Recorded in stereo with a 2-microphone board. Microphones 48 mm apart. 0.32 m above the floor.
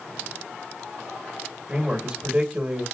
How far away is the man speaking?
About 1.0 m.